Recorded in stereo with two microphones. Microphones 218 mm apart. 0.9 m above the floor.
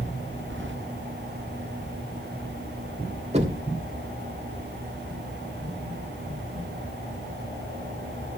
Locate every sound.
0.5 s keys jangling: 60° right (ahead or behind), 1.3 m
3.3 s knocking: 30° right (ahead or behind), 2.5 m